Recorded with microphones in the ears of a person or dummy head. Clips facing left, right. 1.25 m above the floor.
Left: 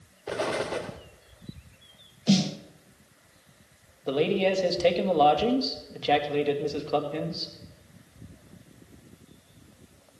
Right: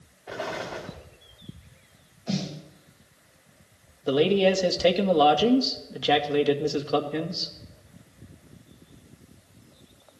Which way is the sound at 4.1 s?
10° right (ahead or behind).